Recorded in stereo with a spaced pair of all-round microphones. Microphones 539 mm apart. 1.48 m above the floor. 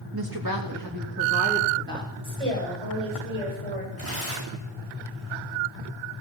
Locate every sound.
0.1 s a woman speaking: 45° right (ahead or behind), 2.5 m; by 2.1 s 20° right (ahead or behind), 3.5 m
2.2 s a woman speaking: 75° right (ahead or behind), 8.5 m
4.0 s tearing paper: 25° right (ahead or behind), 8 m